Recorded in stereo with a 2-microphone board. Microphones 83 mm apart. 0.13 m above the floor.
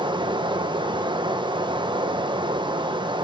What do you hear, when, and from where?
0.0 s running water: 75° right (ahead or behind), 0.9 m